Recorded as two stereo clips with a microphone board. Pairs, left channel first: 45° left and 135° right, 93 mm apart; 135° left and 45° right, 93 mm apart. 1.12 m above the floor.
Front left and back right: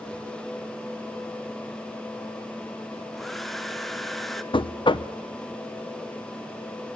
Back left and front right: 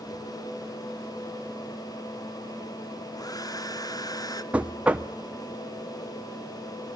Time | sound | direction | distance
3.2 | a hair dryer | 135° left | 0.8 m
4.5 | knocking | 30° left | 0.7 m